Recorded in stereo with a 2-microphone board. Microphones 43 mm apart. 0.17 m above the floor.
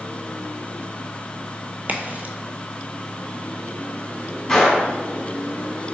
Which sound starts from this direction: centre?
A gunshot, at 4.5 s.